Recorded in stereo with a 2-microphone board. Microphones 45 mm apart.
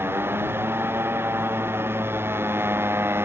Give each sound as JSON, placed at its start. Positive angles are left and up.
{"t": 0.0, "sound": "a motorcycle", "side_deg": -60}